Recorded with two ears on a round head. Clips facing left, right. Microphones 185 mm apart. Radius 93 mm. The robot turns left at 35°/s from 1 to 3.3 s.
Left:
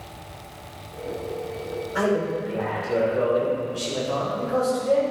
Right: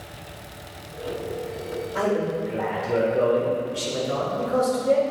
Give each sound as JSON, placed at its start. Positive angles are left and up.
{"t": 1.9, "sound": "a man speaking", "azimuth_deg": 15, "distance_m": 2.0}